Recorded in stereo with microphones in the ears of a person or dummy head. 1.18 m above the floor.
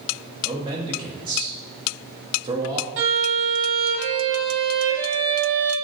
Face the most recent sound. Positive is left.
turn(degrees=-80)